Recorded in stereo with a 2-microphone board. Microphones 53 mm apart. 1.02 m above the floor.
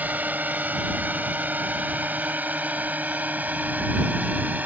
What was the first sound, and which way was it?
A drone, 35° right (ahead or behind).